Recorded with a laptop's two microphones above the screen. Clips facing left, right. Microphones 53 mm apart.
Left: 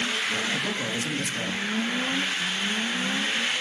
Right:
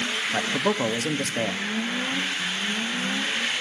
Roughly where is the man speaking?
Right.